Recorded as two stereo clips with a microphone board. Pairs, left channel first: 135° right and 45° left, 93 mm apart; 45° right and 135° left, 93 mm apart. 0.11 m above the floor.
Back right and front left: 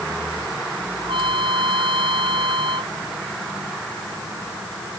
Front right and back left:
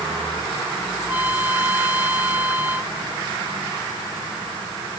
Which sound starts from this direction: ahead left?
A trumpet, at 1.0 s.